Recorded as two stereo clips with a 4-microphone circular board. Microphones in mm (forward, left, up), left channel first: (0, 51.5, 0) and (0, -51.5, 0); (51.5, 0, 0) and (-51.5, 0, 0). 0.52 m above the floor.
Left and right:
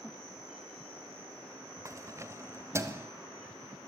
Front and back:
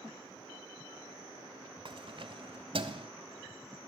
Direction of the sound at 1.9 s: 150° right.